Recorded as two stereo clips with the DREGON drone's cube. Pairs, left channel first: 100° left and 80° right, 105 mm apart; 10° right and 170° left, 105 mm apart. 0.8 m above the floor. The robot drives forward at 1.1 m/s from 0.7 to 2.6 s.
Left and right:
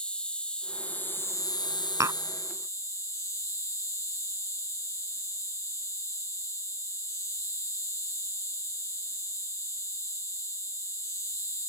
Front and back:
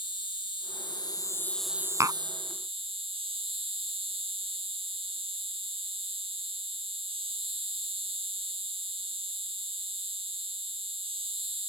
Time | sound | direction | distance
0.0 | an insect | 20° left | ?
2.0 | tapping | 130° right | ?